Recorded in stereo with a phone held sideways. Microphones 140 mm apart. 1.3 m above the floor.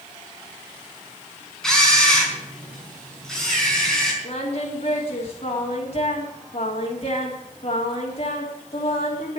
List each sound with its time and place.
1.6 s a camera shutter: 5° left (ahead or behind), 4.5 m
4.2 s singing: 45° left (ahead or behind), 3 m